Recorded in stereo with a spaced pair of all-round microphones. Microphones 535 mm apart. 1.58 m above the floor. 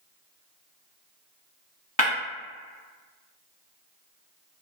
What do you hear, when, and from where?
2.0 s breaking glass: 15° left (ahead or behind), 1.3 m